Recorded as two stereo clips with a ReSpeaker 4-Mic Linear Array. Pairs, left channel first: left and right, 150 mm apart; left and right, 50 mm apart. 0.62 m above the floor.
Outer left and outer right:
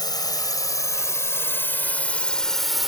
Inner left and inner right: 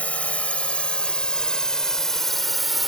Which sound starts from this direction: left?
A drone, at 0.0 s.